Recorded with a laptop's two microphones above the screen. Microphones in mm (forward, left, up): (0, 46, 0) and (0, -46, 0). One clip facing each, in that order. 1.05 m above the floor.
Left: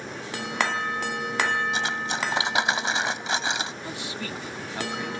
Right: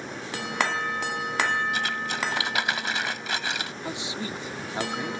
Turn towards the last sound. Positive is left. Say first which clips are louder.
# right 1 dB
turn(degrees=-20)  # may be behind; listen again after turning